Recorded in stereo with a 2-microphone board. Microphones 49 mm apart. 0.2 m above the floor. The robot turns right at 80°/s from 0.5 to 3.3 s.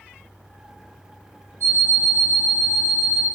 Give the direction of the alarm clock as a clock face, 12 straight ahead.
3 o'clock.